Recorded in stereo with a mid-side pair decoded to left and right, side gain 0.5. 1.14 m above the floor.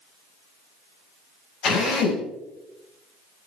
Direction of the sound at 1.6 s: 65° left.